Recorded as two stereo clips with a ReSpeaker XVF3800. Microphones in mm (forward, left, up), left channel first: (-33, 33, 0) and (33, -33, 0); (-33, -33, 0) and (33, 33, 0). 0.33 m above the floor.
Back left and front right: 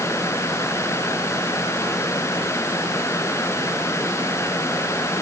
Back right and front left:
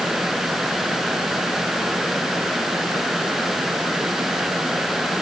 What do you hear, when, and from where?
Only background noise.